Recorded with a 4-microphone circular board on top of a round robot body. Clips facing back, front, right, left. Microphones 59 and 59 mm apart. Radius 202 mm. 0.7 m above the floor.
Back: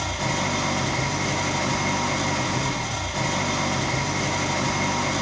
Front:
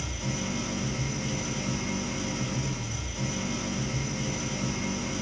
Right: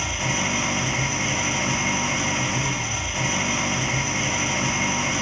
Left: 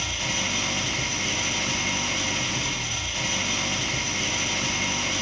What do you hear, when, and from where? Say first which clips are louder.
0.0 s an engine running: back 9 dB, right 4 dB; 160° right, 1.0 m